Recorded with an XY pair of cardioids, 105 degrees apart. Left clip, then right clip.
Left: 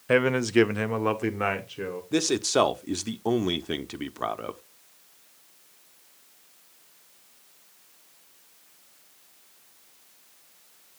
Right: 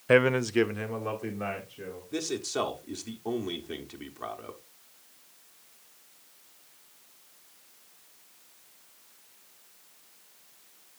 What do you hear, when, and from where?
0.1 s a man speaking: 15° right, 0.5 m; by 2.0 s 75° left, 1.5 m
2.1 s a man speaking: 55° left, 0.7 m